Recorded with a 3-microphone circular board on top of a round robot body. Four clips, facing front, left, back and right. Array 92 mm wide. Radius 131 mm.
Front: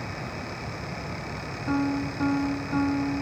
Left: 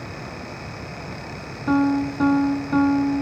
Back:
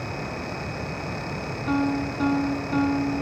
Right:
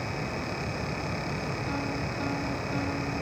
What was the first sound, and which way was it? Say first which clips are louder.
A piano: left 18 dB, back 2 dB; 100° left.